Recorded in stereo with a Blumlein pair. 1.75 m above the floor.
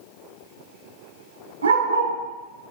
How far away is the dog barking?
About 3.5 m.